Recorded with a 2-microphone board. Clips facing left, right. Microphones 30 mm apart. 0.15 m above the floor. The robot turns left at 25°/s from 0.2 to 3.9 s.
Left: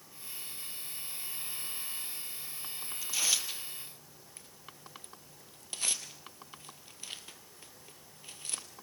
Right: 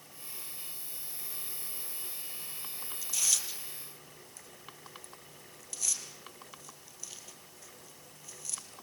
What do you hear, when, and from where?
3.0 s tearing paper: 15° left (ahead or behind), 2 m; by 8.6 s 35° left (ahead or behind), 2 m